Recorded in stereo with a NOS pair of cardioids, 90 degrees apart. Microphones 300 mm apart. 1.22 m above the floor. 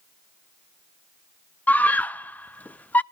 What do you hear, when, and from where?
1.7 s a scream: 5° left, 0.5 m